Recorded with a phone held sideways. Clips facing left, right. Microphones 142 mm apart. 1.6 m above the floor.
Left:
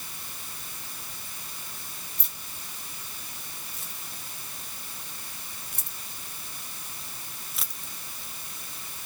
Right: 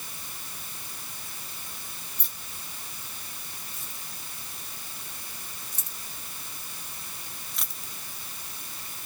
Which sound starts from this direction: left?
Keys jangling, at 2.2 s.